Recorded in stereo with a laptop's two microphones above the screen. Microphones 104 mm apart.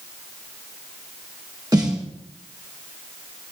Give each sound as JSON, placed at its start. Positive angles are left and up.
{"t": 1.7, "sound": "a snare drum", "side_deg": -35, "distance_m": 1.5}